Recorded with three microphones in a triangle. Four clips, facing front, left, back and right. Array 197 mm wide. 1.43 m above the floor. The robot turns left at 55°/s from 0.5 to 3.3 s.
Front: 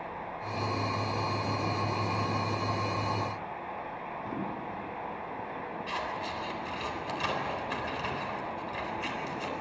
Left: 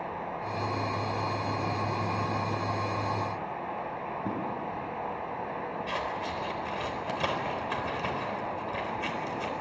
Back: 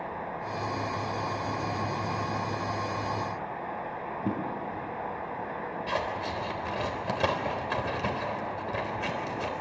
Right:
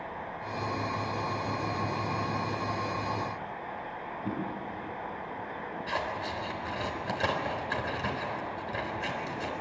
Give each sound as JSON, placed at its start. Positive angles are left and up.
{"t": 4.2, "sound": "a drawer", "azimuth_deg": 165, "distance_m": 8.0}
{"t": 5.9, "sound": "scissors", "azimuth_deg": -170, "distance_m": 4.0}